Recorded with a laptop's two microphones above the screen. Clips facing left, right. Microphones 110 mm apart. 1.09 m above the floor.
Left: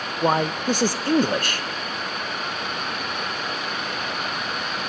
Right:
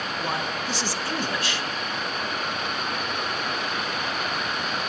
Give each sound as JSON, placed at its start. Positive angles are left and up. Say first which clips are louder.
{"t": 0.2, "sound": "a man speaking", "louder": "left 10 dB", "side_deg": 50, "distance_m": 0.6}